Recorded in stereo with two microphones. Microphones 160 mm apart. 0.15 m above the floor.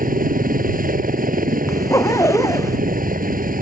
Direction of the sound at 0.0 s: 60° right (ahead or behind).